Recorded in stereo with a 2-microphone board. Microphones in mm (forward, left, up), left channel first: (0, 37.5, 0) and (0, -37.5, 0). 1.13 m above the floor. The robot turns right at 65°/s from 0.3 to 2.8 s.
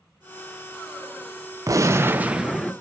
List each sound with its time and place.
1.7 s a gunshot: 60° right, 0.6 m; by 2.7 s 10° left, 0.6 m